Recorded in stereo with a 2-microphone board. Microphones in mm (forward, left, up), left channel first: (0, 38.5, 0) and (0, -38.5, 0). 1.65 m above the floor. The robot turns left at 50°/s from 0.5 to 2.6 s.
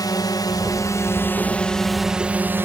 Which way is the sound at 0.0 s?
70° left.